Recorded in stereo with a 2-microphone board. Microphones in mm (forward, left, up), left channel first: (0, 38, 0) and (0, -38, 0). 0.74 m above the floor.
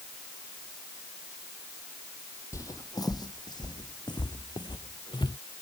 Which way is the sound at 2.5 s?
45° left (ahead or behind).